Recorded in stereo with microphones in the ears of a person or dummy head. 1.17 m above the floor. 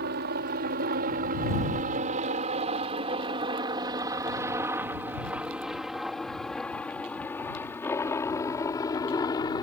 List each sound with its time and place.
0.0 s a helicopter: 55° right (ahead or behind); by 9.6 s 20° left (ahead or behind)